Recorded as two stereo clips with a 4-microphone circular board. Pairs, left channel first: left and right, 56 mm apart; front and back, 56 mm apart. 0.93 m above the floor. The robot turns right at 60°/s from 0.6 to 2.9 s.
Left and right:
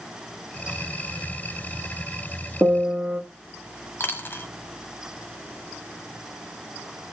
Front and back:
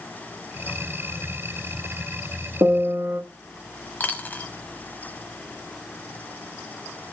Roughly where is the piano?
Behind right.